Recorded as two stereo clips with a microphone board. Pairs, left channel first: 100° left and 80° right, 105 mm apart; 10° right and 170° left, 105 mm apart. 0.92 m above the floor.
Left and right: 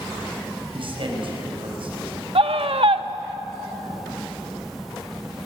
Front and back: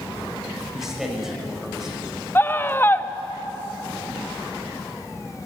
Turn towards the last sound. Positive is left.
turn(degrees=-80)